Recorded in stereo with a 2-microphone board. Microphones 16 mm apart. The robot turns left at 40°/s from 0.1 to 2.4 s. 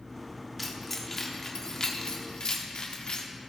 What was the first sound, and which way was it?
Keys jangling, 5° left (ahead or behind).